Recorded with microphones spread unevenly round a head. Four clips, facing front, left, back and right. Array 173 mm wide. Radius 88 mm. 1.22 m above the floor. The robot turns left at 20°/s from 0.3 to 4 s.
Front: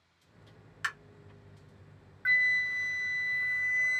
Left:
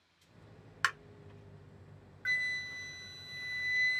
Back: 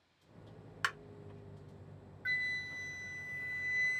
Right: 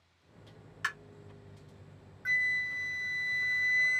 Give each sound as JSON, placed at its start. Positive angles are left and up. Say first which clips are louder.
{"t": 0.8, "sound": "tapping", "louder": "left 4 dB, even", "azimuth_deg": 100, "distance_m": 0.7}
{"t": 2.2, "sound": "a flute", "louder": "right 4 dB, front 10 dB", "azimuth_deg": 10, "distance_m": 0.5}